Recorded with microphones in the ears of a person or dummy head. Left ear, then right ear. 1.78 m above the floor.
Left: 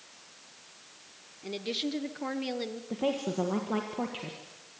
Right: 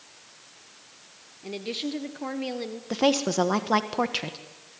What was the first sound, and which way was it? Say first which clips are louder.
A woman speaking: right 1 dB; centre (ahead or behind).